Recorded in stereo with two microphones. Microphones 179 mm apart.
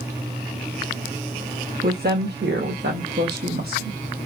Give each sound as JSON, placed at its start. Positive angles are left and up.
{"t": 1.8, "sound": "a woman speaking", "side_deg": -55, "distance_m": 1.1}